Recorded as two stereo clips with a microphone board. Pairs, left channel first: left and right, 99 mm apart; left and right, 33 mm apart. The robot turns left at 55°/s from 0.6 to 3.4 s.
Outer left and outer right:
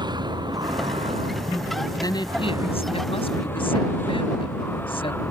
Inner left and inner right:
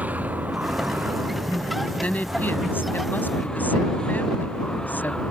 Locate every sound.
0.0 s a vehicle: 45° right; by 5.3 s 160° left
2.0 s a woman speaking: 145° left; by 5.2 s 65° left